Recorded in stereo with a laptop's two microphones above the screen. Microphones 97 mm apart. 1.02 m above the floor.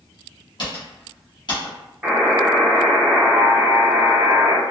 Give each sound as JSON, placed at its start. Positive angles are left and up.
{"t": 0.6, "sound": "typing on a keyboard", "side_deg": 50, "distance_m": 1.1}
{"t": 2.0, "sound": "a buzzer", "side_deg": -10, "distance_m": 1.2}